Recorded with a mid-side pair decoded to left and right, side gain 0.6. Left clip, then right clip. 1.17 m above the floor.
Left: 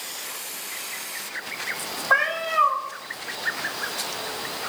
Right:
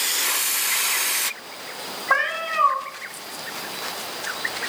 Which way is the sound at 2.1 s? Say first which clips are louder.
Left 1 dB; 15° right.